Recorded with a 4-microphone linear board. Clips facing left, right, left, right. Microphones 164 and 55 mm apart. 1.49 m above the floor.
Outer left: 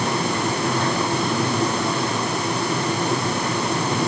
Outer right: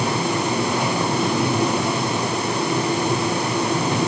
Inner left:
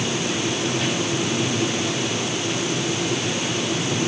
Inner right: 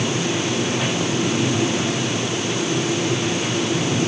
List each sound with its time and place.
Only background noise.